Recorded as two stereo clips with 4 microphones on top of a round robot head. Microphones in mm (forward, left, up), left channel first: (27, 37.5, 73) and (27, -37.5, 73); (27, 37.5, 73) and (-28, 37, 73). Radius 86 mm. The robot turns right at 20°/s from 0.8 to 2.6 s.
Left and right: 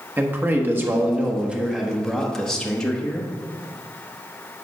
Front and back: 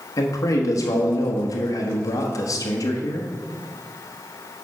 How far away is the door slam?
I don't hear a door slam.